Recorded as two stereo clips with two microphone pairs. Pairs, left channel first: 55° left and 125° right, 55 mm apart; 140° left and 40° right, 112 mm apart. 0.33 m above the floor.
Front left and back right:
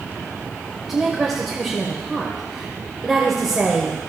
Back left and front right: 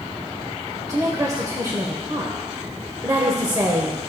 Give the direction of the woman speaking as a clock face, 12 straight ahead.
1 o'clock.